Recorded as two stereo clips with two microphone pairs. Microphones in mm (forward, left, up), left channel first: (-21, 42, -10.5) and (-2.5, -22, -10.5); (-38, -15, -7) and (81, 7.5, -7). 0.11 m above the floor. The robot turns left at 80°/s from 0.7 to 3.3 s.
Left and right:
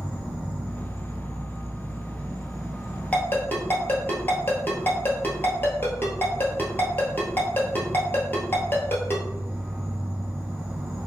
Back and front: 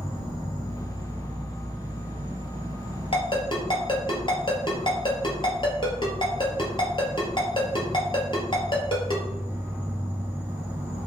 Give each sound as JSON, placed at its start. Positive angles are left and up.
{"t": 0.0, "sound": "an insect", "azimuth_deg": 170, "distance_m": 1.4}
{"t": 3.1, "sound": "a ringtone", "azimuth_deg": 170, "distance_m": 1.2}